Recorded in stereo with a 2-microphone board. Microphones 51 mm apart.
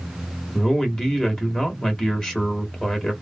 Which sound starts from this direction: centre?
A man speaking, at 0.5 s.